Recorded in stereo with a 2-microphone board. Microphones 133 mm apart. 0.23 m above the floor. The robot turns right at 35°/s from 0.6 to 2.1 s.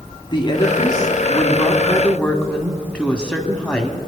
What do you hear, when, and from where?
0.3 s a woman speaking: 115° left, 1.4 m; by 4.0 s 170° left, 1.4 m